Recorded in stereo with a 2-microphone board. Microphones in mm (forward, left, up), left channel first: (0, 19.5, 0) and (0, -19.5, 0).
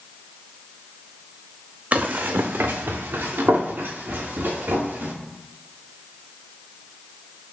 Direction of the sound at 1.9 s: 45° right (ahead or behind).